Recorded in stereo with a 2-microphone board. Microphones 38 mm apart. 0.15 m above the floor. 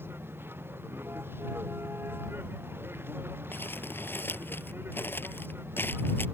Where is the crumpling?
65° left (ahead or behind).